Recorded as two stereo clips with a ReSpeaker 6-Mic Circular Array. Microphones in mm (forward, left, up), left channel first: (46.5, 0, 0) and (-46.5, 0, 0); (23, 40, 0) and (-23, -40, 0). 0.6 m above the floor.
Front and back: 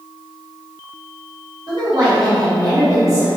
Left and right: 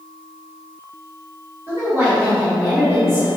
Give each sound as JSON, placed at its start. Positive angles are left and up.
{"t": 1.7, "sound": "a woman speaking", "azimuth_deg": -175, "distance_m": 1.7}